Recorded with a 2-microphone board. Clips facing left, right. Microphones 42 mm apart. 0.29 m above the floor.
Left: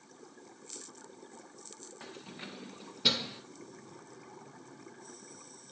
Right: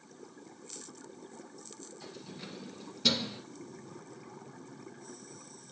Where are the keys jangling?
40° left (ahead or behind), 1.8 m; by 3.4 s centre (ahead or behind), 1.7 m.